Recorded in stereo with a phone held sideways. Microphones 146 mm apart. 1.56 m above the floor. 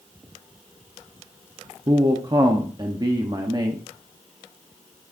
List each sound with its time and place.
1.9 s a man speaking: 30° right (ahead or behind), 0.9 m